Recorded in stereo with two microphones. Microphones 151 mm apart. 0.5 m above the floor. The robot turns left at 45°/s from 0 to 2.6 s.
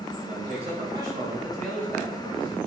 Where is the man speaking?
120° right, 3 m; by 2.6 s 135° left, 3 m.